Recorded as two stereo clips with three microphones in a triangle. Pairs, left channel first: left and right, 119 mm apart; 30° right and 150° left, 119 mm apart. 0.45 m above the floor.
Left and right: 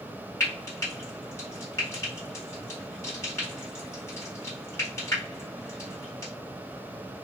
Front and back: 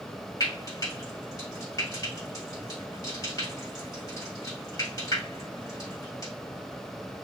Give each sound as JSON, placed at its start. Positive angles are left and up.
{"t": 0.4, "sound": "frying", "azimuth_deg": 25, "distance_m": 3.0}